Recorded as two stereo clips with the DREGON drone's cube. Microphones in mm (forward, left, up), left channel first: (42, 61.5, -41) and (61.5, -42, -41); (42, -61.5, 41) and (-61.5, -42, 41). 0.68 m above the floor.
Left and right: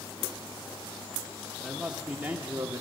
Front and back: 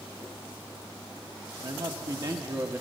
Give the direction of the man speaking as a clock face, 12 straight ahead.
6 o'clock.